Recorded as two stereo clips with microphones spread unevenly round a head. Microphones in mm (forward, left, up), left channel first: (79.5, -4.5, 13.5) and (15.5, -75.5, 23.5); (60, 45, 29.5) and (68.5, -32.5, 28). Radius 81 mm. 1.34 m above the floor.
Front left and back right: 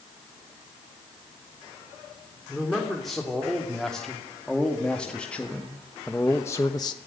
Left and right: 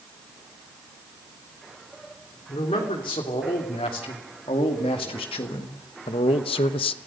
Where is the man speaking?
140° left, 3.5 m; by 7.0 s 115° left, 0.7 m.